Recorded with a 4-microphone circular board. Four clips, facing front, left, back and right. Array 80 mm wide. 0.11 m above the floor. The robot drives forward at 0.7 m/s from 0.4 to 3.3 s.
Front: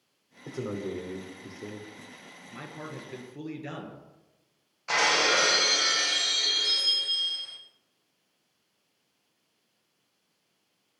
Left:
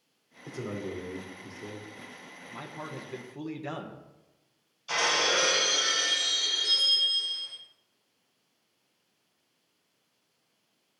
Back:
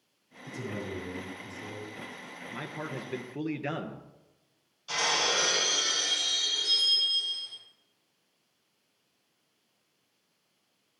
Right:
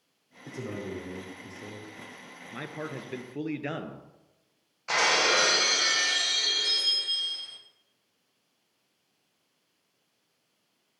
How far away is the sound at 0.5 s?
About 5 m.